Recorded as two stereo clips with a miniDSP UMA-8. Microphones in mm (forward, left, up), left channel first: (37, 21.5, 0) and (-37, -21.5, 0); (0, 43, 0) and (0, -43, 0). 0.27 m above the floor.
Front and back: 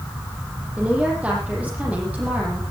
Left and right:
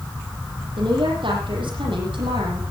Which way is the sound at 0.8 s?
75° right.